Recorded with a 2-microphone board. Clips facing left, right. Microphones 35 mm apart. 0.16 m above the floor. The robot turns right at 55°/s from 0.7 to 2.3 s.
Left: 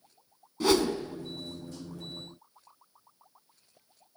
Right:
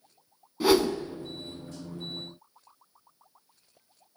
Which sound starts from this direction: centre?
A whoosh, at 0.6 s.